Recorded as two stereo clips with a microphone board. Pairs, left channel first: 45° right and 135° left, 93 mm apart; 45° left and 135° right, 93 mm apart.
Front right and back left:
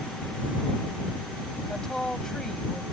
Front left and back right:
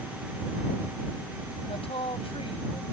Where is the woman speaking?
40° left.